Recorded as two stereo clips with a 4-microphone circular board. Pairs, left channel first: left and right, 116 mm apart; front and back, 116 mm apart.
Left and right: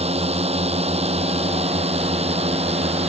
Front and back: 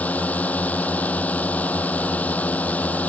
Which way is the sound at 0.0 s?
75° right.